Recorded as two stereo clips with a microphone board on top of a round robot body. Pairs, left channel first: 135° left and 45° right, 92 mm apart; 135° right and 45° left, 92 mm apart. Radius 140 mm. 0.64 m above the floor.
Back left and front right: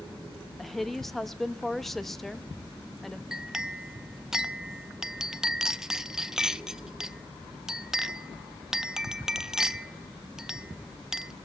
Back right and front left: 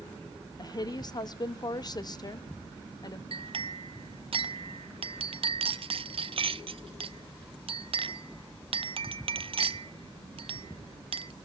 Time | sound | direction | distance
0.6 | a woman speaking | 140° right | 0.9 m
3.3 | a clink | 40° left | 0.5 m